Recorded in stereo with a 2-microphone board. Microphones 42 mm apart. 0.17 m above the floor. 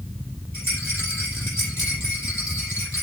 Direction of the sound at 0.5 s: 75° left (ahead or behind).